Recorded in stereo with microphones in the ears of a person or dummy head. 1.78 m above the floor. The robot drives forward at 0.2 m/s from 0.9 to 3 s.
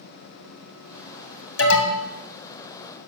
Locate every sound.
1.6 s an alarm: 60° left (ahead or behind), 1.0 m; by 2.1 s 55° left (ahead or behind), 1.1 m